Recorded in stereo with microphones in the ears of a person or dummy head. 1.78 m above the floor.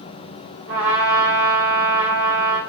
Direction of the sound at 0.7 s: 10° right (ahead or behind).